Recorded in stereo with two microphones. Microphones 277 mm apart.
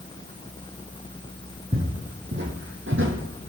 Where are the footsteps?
35° right (ahead or behind), 2.5 m; by 3.5 s 55° right (ahead or behind), 2.0 m.